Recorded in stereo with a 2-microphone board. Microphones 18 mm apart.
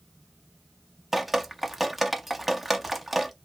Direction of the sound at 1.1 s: 10° right (ahead or behind).